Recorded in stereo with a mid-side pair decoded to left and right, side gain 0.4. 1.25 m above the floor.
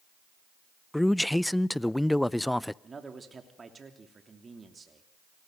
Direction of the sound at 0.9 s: 10° left.